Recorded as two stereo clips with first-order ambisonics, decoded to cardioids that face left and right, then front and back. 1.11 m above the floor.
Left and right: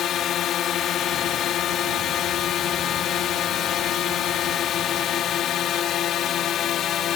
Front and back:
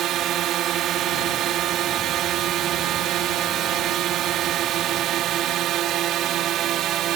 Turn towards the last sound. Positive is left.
turn(degrees=140)